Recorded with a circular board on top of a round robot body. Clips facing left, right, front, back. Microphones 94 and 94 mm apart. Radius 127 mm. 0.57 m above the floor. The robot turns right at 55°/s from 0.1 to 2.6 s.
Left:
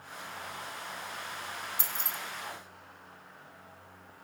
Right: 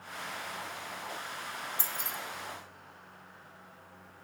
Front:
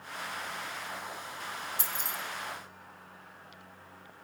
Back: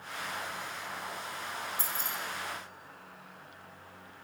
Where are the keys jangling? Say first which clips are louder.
Even, back 1 dB; 15° left, 1.2 m; by 2.2 s 35° left, 1.2 m.